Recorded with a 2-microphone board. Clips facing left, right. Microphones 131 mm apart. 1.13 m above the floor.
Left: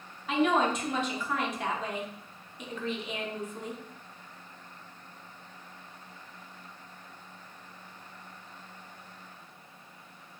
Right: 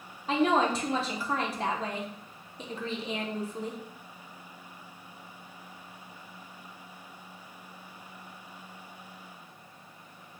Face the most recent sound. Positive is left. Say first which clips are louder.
# right 1 dB
turn(degrees=-30)  # may be behind; listen again after turning